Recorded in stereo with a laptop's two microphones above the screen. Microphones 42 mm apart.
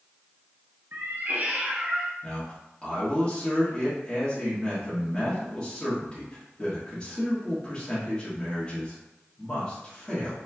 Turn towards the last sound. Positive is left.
turn(degrees=25)  # may be behind; listen again after turning